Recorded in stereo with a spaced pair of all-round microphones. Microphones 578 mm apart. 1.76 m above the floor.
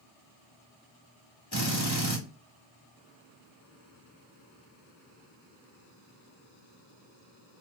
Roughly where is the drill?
Left.